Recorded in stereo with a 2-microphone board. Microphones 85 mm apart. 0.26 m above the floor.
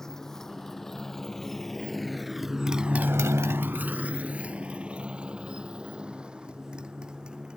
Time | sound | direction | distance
0.0 | a motorcycle | 5° left (ahead or behind) | ?